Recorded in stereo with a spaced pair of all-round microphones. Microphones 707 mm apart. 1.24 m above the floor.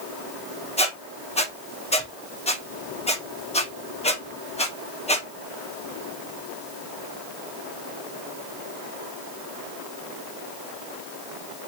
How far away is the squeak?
About 0.9 m.